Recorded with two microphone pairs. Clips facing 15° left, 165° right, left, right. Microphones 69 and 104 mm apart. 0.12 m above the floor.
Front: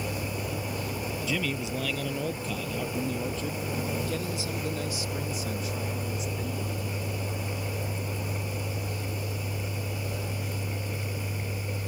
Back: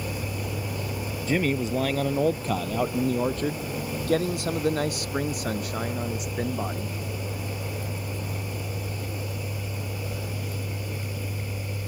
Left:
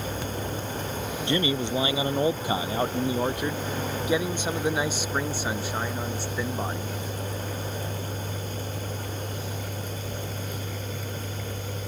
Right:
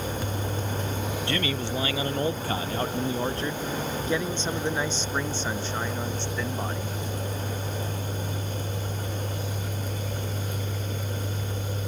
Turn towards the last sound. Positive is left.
turn(degrees=170)